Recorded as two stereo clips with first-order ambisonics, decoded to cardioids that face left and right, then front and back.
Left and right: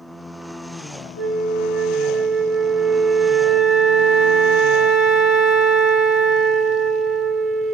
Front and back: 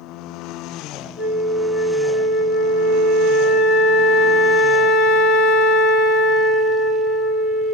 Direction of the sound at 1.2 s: 10° right.